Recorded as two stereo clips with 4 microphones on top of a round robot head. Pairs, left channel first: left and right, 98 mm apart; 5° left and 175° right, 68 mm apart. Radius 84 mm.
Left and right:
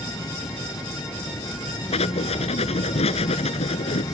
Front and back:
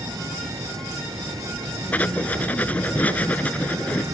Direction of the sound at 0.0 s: 150° left.